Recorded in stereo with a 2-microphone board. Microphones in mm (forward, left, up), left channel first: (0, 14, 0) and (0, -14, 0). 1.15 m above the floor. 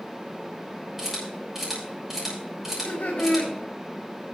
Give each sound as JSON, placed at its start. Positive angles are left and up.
{"t": 1.0, "sound": "a camera shutter", "side_deg": -15, "distance_m": 7.0}
{"t": 2.6, "sound": "laughter", "side_deg": 65, "distance_m": 3.0}